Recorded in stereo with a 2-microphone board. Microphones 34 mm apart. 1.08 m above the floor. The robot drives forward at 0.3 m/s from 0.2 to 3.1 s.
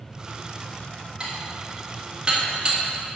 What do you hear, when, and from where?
1.2 s dishes clattering: 20° right (ahead or behind), 1.8 m; by 2.8 s 30° right (ahead or behind), 1.3 m